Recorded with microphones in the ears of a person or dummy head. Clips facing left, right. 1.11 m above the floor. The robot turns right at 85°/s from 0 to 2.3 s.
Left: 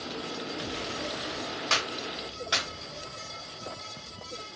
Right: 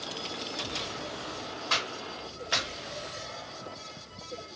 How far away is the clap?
About 1.1 m.